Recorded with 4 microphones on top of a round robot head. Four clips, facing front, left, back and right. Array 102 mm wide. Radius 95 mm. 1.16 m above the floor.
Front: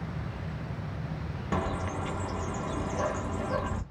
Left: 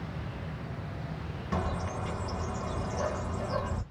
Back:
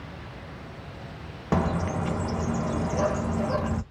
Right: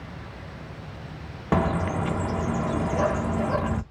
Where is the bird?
120° right, 0.6 m.